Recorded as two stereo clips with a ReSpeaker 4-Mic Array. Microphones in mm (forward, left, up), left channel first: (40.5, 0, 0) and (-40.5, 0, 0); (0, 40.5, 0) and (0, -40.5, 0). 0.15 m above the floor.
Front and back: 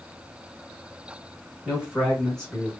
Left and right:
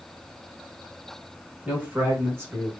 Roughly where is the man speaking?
Behind right.